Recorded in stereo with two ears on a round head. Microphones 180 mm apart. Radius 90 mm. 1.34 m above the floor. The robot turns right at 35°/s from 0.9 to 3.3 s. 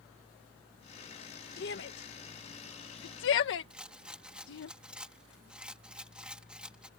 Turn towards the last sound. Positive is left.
turn(degrees=-5)  # may be behind; listen again after turning